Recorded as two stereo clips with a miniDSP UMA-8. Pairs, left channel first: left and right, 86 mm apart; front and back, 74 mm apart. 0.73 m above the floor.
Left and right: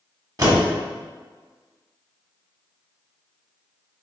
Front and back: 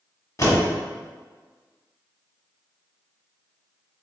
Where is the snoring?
No snoring in this recording.